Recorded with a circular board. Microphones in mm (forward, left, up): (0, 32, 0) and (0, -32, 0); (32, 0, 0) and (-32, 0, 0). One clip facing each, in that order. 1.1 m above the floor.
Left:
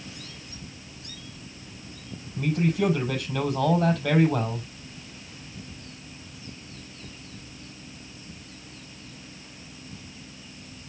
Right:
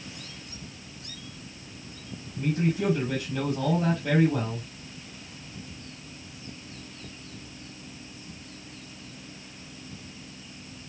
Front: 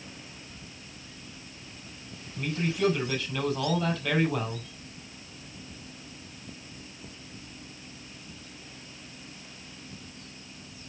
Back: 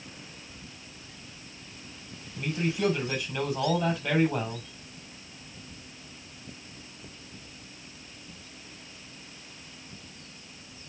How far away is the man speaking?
About 6.5 m.